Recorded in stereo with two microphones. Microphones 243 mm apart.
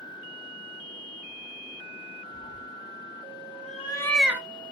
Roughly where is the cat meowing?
Left.